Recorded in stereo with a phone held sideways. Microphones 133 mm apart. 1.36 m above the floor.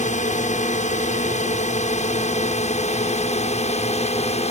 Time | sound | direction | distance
0.0 | a drone | 65° left (ahead or behind) | ?